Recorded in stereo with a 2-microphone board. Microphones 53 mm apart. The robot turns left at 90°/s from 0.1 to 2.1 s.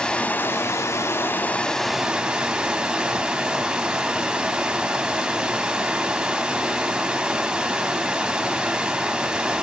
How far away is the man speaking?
I don't hear a man speaking.